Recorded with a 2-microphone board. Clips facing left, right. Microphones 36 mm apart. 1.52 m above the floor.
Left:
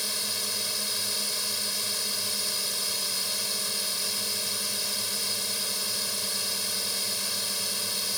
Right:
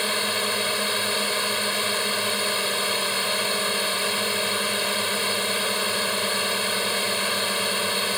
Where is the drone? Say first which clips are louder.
Right 9 dB; 40° right (ahead or behind).